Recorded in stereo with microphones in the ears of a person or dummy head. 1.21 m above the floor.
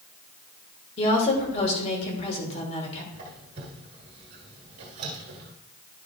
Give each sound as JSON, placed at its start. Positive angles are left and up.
{"t": 1.0, "sound": "a woman speaking", "side_deg": 35, "distance_m": 2.5}
{"t": 3.1, "sound": "a squeak", "side_deg": -30, "distance_m": 1.3}